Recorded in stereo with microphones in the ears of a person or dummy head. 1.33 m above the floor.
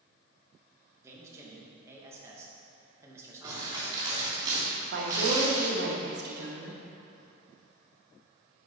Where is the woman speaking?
55° right (ahead or behind), 1.5 m.